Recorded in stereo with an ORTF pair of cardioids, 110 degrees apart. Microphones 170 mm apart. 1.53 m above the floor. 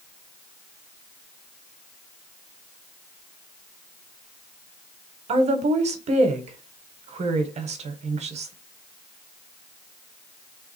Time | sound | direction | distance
5.3 | a woman speaking | 40° right | 1.0 m